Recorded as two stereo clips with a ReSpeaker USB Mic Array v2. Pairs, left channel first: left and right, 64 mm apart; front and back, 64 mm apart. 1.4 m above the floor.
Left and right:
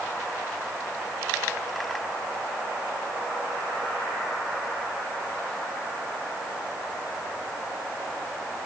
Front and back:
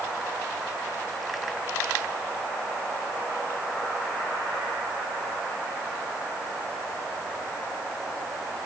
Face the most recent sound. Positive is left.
No sound to turn to.